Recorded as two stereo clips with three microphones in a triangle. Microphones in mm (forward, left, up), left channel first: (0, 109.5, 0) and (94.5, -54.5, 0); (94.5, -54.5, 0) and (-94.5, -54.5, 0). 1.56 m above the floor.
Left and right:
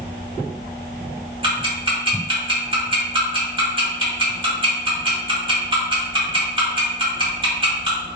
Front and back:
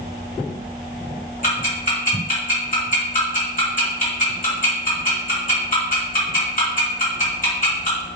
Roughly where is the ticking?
Ahead.